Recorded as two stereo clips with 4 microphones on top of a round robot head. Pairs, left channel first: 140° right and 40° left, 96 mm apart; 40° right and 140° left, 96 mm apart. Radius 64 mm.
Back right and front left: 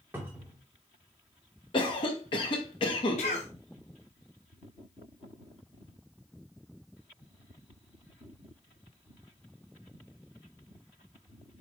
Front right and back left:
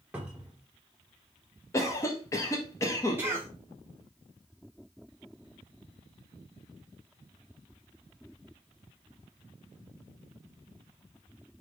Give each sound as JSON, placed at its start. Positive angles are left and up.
{"t": 0.1, "sound": "a cupboard door", "azimuth_deg": 75, "distance_m": 0.7}
{"t": 1.7, "sound": "a cough", "azimuth_deg": -100, "distance_m": 1.2}
{"t": 3.2, "sound": "a cough", "azimuth_deg": -150, "distance_m": 0.7}